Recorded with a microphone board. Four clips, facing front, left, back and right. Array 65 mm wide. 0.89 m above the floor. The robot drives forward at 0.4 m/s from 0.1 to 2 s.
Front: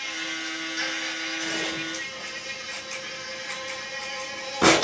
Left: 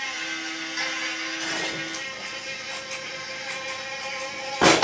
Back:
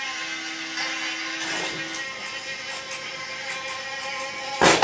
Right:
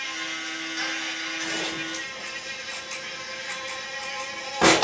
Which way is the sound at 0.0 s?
155° left.